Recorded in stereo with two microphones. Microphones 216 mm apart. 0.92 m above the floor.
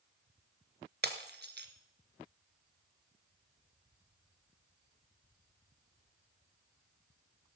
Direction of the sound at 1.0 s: 50° right (ahead or behind).